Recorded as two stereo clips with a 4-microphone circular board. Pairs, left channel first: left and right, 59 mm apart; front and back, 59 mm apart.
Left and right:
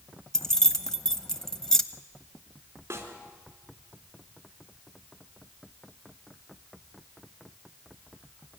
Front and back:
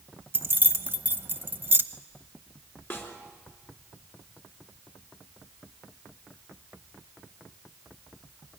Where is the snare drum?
45° right, 3.5 m.